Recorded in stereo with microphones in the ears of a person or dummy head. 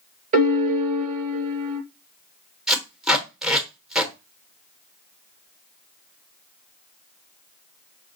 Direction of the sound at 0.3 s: 45° right (ahead or behind).